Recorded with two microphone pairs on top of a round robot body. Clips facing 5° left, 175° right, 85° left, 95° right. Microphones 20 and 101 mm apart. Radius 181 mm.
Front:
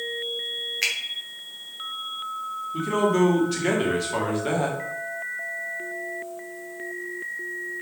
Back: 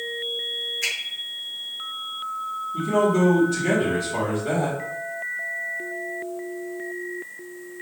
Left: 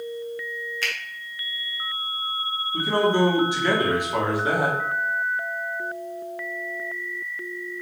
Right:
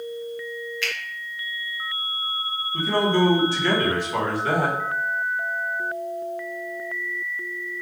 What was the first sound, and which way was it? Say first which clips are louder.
A finger snap: front 3 dB, left 1 dB; 40° left.